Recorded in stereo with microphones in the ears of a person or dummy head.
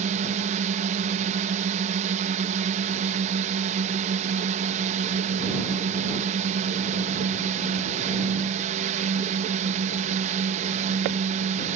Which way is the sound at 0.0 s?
45° right (ahead or behind).